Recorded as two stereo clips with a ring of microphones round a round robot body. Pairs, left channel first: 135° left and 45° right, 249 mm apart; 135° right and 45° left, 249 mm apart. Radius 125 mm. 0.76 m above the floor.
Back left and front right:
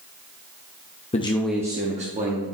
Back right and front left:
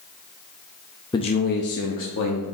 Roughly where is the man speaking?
Behind.